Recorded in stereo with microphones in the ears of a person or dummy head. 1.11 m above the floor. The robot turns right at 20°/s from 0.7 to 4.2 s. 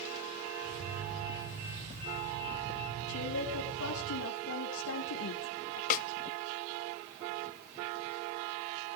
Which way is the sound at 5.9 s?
45° left (ahead or behind).